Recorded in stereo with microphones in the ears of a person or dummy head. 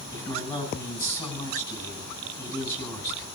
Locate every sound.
0.1 s a man speaking: 25° left (ahead or behind), 7.5 m